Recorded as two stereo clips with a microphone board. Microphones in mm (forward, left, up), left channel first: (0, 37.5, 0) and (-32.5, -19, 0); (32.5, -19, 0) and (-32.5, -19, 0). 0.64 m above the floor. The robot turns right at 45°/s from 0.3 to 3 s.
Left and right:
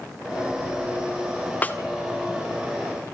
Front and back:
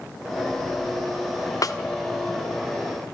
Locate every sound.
1.6 s a snare drum: straight ahead, 1.9 m; by 1.8 s 5° left, 1.9 m